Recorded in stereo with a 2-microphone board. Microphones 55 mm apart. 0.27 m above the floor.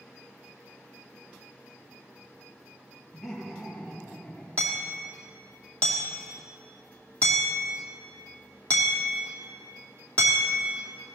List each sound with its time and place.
3.1 s laughter: 5° right (ahead or behind), 6.5 m; by 4.5 s 10° left (ahead or behind), 6.5 m
4.6 s hammering: 30° left (ahead or behind), 2.5 m